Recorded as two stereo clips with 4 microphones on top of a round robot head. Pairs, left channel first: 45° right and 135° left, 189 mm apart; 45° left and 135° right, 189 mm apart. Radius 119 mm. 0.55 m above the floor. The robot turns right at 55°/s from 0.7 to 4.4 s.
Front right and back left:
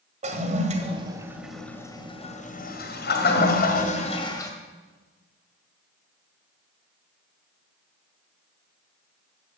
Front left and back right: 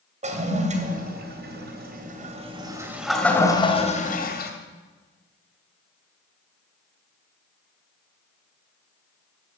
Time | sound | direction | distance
0.2 | a toilet flushing | straight behind | 1.9 m